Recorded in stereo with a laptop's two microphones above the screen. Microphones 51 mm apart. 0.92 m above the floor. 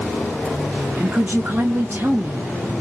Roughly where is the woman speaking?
Right.